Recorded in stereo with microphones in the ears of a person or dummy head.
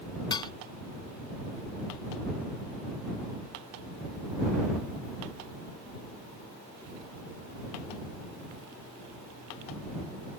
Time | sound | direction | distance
0.3 | dishes clattering | 25° left (ahead or behind) | ?